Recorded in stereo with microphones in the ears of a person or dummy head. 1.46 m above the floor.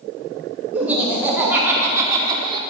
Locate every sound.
0.7 s laughter: 5° right (ahead or behind), 3 m; by 2.6 s 25° right (ahead or behind), 1.5 m